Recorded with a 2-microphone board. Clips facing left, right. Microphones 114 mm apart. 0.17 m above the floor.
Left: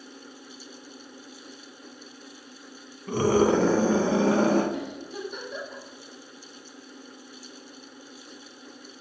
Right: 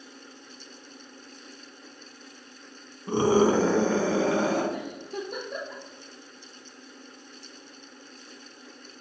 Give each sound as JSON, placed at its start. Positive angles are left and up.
{"t": 3.1, "sound": "a scream", "side_deg": -30, "distance_m": 1.3}
{"t": 4.7, "sound": "a giggle", "side_deg": -50, "distance_m": 2.5}